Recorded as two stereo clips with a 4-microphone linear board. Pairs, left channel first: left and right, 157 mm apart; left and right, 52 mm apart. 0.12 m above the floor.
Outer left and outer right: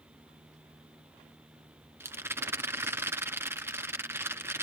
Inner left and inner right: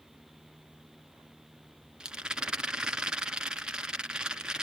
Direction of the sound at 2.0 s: 15° right (ahead or behind).